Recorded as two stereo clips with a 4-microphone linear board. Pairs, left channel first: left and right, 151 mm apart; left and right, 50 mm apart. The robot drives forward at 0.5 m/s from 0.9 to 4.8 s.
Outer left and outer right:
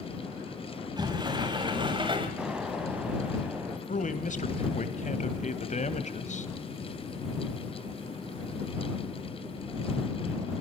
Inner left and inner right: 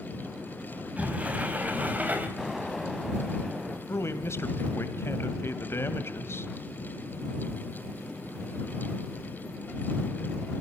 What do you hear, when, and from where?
1.0 s a sliding door: 30° right (ahead or behind), 3.5 m; by 2.3 s 35° right (ahead or behind), 3 m
2.4 s an explosion: 5° right (ahead or behind), 3.5 m
3.9 s a man speaking: 60° left (ahead or behind), 2 m; by 6.5 s 55° left (ahead or behind), 2.5 m